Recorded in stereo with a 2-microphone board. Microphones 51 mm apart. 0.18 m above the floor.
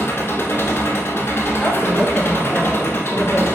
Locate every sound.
0.0 s an engine running: 55° left (ahead or behind), 1.0 m
1.6 s a woman speaking: 20° left (ahead or behind), 1.0 m